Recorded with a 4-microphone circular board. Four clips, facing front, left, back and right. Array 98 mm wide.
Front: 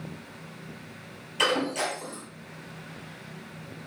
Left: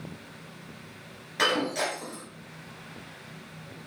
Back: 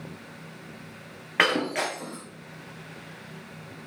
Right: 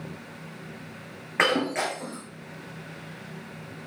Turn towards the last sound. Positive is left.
turn(degrees=-145)